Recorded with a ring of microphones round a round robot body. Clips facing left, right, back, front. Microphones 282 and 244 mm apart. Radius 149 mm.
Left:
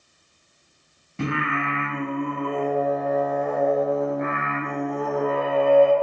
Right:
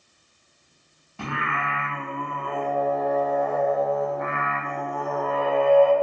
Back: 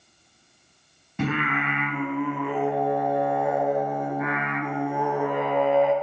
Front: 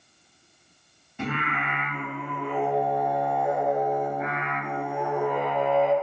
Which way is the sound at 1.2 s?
160° left.